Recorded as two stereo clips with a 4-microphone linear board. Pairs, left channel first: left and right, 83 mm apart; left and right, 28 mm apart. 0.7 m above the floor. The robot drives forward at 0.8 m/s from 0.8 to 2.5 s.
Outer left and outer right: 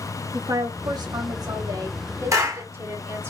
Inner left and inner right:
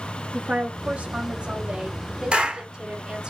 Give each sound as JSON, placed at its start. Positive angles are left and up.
{"t": 0.3, "sound": "a woman speaking", "side_deg": -50, "distance_m": 1.1}
{"t": 2.3, "sound": "a clap", "side_deg": -40, "distance_m": 2.0}